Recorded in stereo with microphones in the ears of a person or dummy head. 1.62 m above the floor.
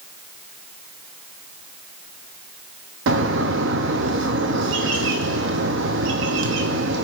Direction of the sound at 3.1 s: 70° right (ahead or behind).